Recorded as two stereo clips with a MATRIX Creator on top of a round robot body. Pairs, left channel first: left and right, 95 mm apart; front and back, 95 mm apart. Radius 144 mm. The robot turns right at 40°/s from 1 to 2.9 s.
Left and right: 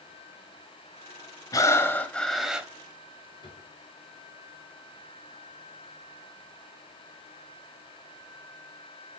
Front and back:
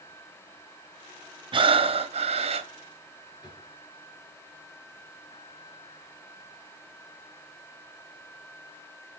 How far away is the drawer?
About 2.5 m.